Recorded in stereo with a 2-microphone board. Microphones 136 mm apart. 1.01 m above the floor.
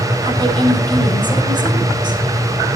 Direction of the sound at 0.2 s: 35° right (ahead or behind).